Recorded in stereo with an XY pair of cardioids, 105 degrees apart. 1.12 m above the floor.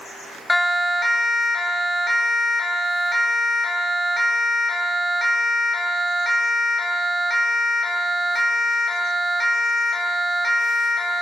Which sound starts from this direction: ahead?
A siren, at 0.5 s.